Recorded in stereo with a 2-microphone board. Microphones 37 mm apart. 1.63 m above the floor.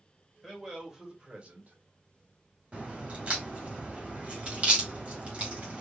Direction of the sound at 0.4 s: 5° right (ahead or behind).